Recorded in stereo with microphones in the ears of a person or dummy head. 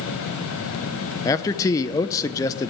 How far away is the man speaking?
About 0.6 m.